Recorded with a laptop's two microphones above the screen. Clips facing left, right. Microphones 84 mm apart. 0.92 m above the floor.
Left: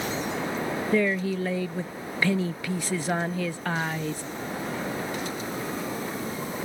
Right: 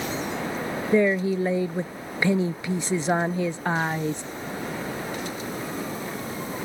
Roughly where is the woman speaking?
Right.